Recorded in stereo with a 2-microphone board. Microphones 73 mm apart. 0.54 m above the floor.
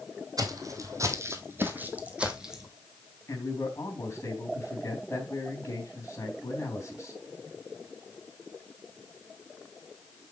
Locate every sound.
0.4 s footsteps: 55° right (ahead or behind), 1.7 m; by 2.7 s 5° right (ahead or behind), 1.7 m
3.3 s a man speaking: 40° left (ahead or behind), 3.5 m